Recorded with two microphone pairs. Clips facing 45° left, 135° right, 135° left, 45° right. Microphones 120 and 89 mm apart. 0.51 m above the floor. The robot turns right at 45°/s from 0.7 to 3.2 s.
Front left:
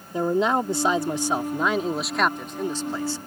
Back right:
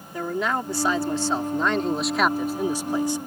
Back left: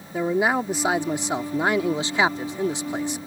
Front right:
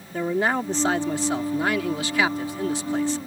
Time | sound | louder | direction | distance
0.1 | a man speaking | front left 5 dB, back left 2 dB | 70° left | ?